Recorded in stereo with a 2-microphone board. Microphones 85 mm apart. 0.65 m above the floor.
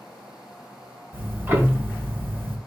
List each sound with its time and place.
1.1 s ticking: 25° right (ahead or behind), 0.9 m